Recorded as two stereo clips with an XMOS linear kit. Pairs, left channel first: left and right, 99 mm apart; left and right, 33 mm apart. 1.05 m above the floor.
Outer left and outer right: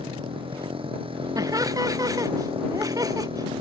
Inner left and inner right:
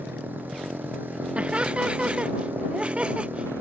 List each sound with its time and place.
0.0 s a motorcycle: 65° right (ahead or behind); by 3.6 s 70° right (ahead or behind)
1.4 s laughter: 40° right (ahead or behind)